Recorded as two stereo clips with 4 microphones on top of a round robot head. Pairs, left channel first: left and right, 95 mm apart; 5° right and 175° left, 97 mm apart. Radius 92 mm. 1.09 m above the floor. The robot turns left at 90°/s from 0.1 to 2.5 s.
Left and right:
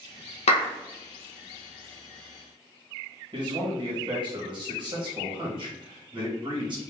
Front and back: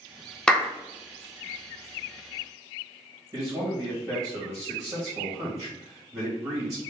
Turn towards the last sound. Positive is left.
turn(degrees=-115)